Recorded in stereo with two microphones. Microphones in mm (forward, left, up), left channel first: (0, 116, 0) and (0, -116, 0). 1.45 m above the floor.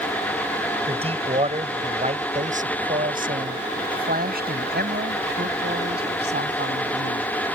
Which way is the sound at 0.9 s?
25° right (ahead or behind).